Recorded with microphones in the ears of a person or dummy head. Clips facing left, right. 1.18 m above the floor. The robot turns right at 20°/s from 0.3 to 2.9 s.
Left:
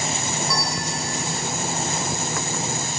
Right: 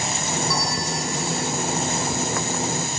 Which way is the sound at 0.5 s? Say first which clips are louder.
Right 1 dB; 60° left (ahead or behind).